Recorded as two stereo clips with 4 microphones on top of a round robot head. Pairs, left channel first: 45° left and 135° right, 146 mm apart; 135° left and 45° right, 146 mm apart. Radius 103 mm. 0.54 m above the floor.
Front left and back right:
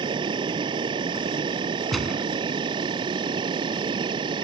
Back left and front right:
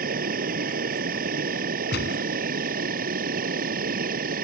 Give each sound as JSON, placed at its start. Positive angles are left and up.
{"t": 0.0, "sound": "an insect", "azimuth_deg": -75}
{"t": 1.9, "sound": "a gunshot", "azimuth_deg": 135}